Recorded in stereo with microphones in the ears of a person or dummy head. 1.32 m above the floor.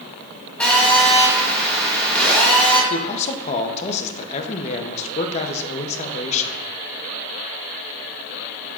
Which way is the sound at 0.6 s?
5° left (ahead or behind).